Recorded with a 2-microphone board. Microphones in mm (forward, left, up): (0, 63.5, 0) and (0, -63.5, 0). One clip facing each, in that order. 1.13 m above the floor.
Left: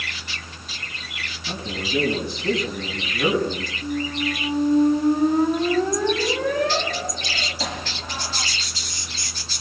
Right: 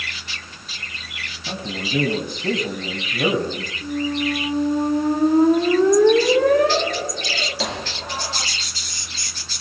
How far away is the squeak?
About 3.5 m.